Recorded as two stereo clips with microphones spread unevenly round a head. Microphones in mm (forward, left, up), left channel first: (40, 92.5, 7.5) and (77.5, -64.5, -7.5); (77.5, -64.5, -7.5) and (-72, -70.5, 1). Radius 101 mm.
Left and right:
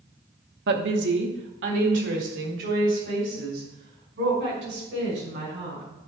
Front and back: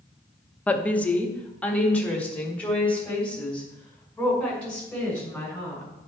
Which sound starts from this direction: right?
A woman speaking, at 0.7 s.